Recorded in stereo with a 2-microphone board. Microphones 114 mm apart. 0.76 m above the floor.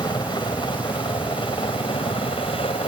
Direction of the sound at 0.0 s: 45° left (ahead or behind).